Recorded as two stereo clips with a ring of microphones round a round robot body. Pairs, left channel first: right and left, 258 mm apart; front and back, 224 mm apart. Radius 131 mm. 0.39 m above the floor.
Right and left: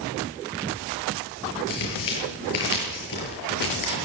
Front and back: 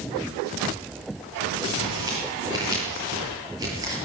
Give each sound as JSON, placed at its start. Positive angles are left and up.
{"t": 1.7, "sound": "tearing paper", "azimuth_deg": -105, "distance_m": 7.5}